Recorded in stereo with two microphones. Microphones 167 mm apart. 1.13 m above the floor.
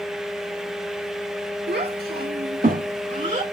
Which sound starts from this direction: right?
A child speaking, at 1.7 s.